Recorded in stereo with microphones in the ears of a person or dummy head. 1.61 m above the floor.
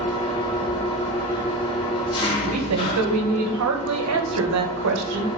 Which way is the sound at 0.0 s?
25° left (ahead or behind).